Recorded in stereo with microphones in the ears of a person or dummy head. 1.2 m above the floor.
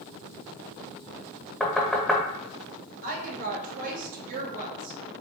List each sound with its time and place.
1.6 s knocking: 5° left (ahead or behind), 0.7 m
3.0 s a woman speaking: 50° right (ahead or behind), 1.0 m